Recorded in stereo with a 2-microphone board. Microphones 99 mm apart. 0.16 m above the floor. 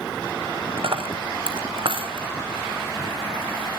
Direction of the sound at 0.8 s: 60° right (ahead or behind).